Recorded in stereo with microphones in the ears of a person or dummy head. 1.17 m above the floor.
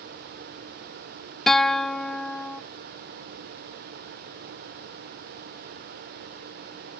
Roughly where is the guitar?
Centre.